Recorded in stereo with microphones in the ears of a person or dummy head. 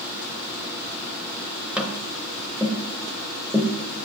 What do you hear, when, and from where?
1.8 s tapping: 5° right (ahead or behind), 0.7 m